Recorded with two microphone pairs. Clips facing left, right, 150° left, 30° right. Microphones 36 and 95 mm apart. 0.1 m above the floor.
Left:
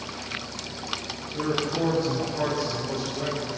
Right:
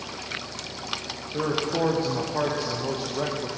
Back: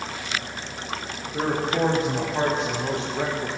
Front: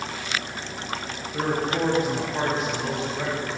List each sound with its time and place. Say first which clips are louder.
1.3 s a man speaking: right 1 dB, back 1 dB; 125° right, 6.5 m; by 3.5 s 145° right, 4.5 m